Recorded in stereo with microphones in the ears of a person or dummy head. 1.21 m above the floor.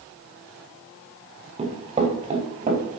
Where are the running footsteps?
30° right (ahead or behind), 5 m; by 3.0 s 40° right (ahead or behind), 4.5 m.